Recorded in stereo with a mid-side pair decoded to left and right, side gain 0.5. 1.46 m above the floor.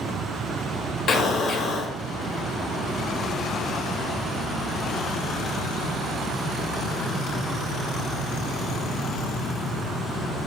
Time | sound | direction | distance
1.1 | an explosion | 50° left | 0.6 m